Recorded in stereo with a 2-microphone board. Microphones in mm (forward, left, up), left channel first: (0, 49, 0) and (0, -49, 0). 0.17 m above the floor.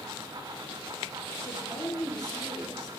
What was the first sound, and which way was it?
A woman speaking, 45° left (ahead or behind).